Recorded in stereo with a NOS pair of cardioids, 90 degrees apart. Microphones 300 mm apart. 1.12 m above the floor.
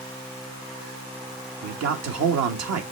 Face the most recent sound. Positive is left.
turn(degrees=-55)